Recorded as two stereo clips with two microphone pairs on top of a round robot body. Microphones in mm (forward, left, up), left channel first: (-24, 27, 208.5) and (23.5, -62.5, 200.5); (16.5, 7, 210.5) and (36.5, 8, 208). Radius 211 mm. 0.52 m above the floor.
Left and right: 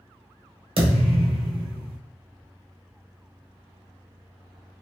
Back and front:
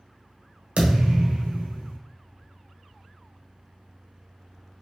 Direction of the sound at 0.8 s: 35° right.